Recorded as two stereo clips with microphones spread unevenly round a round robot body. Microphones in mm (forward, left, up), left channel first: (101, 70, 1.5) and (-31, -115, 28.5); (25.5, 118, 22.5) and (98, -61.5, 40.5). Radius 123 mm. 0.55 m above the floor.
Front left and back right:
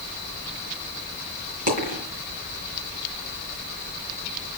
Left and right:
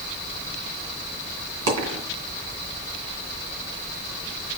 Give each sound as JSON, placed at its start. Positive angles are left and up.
{"t": 1.7, "sound": "a dropped coin", "azimuth_deg": -70, "distance_m": 3.0}